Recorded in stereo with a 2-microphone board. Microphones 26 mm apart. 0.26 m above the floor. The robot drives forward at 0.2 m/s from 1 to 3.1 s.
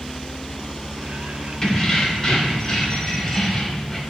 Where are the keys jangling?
15° left (ahead or behind), 0.6 m.